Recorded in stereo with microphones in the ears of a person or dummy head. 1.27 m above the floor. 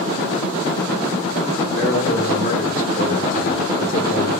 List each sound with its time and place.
1.8 s a man speaking: 50° left (ahead or behind), 1.8 m